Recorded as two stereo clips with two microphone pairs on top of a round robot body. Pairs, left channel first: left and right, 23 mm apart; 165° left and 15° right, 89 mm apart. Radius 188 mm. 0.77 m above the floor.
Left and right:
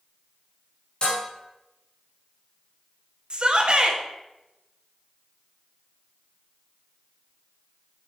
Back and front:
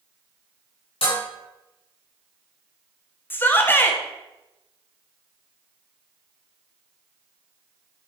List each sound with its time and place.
1.0 s dishes clattering: 150° left, 4.5 m
3.3 s a shout: 125° right, 2 m